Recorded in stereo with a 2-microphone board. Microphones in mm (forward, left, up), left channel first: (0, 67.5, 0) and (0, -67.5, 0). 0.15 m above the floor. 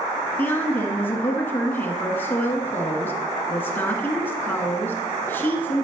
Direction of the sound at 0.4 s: 15° left (ahead or behind).